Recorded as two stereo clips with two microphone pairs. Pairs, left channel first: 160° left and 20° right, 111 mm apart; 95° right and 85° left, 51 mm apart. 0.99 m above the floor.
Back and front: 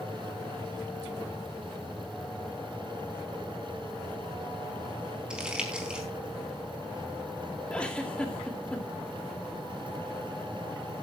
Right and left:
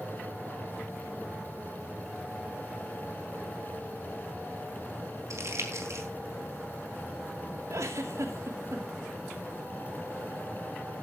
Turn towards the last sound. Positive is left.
turn(degrees=80)